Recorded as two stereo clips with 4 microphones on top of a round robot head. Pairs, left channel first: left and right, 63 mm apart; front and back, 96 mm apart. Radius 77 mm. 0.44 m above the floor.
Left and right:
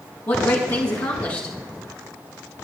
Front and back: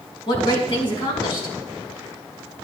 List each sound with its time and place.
0.3 s a woman speaking: 35° left, 5 m